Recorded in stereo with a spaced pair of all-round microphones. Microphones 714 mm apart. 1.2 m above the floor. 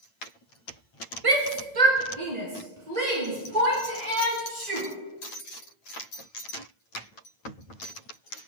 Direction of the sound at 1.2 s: 50° right (ahead or behind).